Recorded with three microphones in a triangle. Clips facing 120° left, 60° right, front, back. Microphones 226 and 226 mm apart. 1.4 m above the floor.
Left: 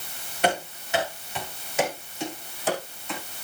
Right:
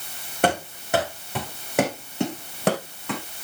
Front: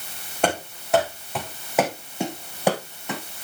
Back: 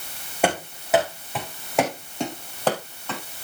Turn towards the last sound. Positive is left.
turn(degrees=-75)